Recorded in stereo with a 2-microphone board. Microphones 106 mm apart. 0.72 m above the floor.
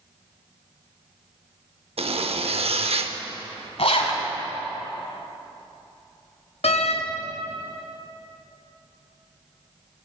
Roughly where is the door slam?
Left.